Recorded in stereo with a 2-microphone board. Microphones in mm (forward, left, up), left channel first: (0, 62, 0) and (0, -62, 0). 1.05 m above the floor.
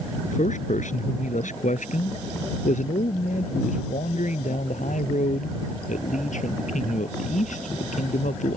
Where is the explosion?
I don't hear an explosion.